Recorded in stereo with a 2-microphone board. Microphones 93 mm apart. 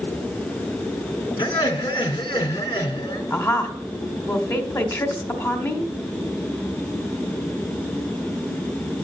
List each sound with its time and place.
1.4 s laughter: 65° left (ahead or behind), 2.5 m
3.3 s a woman speaking: 35° left (ahead or behind), 1.6 m